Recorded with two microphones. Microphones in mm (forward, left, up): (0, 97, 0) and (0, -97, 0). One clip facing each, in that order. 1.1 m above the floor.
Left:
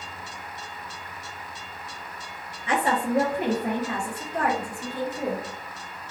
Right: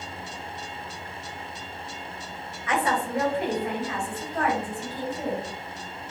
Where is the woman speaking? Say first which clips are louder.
Left 2 dB; 30° left (ahead or behind), 0.8 m; by 5.5 s 50° left (ahead or behind), 1.6 m.